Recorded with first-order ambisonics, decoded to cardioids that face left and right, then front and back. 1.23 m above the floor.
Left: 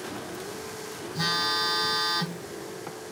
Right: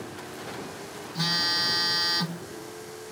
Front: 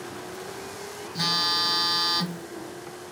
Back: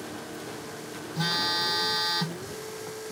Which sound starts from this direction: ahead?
A phone buzzing, at 1.1 s.